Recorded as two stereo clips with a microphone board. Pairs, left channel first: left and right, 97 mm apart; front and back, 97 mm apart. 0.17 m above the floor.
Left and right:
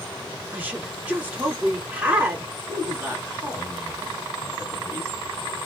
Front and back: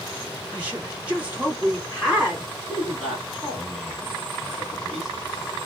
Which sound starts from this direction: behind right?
A woman speaking, at 0.5 s.